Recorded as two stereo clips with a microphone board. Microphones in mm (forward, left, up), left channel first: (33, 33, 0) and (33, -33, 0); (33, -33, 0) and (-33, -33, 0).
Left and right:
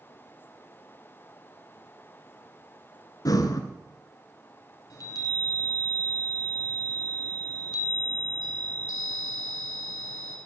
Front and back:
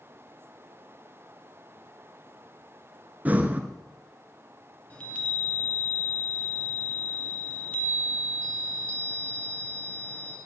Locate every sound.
3.2 s breathing: 115° left, 0.8 m
4.9 s a chime: 70° left, 2 m